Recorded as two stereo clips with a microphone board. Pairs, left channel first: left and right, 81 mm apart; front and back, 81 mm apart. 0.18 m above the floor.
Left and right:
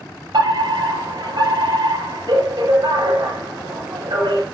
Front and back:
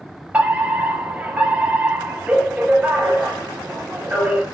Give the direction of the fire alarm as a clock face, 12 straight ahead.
4 o'clock.